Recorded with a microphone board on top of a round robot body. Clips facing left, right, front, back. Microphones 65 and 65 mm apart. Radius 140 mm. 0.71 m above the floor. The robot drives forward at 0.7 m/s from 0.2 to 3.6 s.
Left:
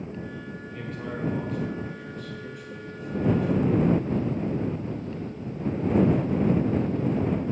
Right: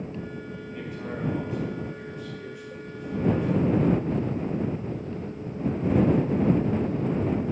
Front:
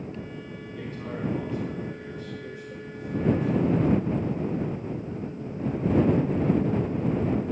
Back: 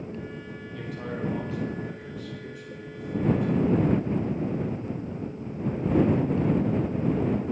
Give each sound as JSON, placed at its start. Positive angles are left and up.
{"t": 0.7, "sound": "a man speaking", "azimuth_deg": -170, "distance_m": 4.0}